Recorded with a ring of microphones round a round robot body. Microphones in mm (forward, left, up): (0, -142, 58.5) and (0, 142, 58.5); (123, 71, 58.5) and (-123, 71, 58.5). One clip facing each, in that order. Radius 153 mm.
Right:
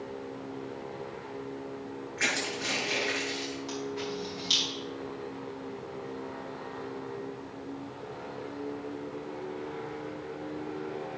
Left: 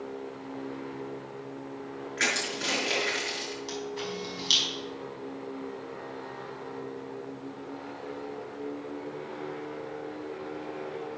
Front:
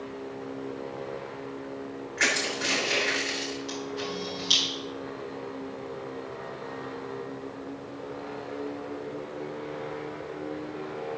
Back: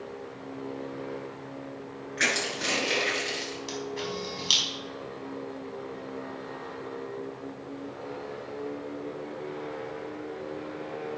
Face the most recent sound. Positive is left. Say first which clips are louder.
# even, even
turn(degrees=160)